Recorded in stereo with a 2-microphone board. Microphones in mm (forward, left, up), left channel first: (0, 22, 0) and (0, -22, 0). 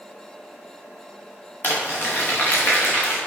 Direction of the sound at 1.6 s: 50° left (ahead or behind).